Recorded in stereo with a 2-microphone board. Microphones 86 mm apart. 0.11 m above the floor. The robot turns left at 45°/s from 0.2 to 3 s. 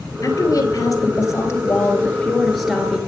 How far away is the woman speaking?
About 2 m.